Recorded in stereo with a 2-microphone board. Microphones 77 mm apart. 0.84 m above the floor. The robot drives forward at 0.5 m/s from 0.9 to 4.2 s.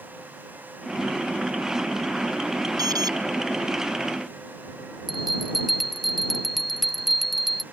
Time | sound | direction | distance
2.8 | an alarm | 55° right (ahead or behind) | ?
5.1 | a bell | centre (ahead or behind) | ?